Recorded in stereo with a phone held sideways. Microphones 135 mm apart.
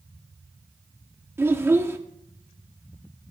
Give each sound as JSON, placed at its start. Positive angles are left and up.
{"t": 1.4, "sound": "a child speaking", "side_deg": -15, "distance_m": 1.4}